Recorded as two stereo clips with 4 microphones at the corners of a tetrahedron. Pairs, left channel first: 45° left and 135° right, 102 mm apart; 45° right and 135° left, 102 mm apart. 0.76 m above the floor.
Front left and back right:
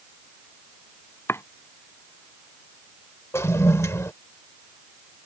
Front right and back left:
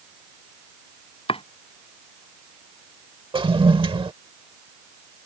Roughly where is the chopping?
Ahead.